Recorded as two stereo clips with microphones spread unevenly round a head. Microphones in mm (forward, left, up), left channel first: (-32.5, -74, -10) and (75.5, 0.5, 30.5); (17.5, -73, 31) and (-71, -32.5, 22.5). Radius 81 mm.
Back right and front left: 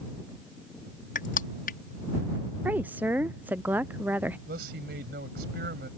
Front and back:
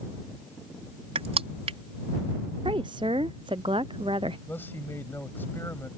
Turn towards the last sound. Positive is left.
turn(degrees=55)